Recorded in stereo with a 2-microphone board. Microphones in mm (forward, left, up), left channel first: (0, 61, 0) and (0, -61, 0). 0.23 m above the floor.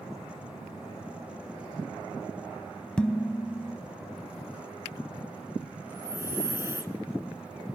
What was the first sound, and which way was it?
Dishes clattering, 10° left (ahead or behind).